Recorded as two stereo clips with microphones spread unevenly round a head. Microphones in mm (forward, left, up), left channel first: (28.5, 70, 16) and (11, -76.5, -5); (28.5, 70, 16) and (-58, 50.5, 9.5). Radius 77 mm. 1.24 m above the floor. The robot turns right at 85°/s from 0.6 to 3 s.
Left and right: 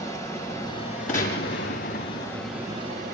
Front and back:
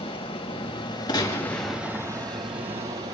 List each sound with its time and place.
0.0 s running water: 15° left, 5.5 m; by 3.1 s 140° right, 5.5 m
1.1 s a gunshot: 45° left, 8.5 m; by 2.3 s 145° left, 8.5 m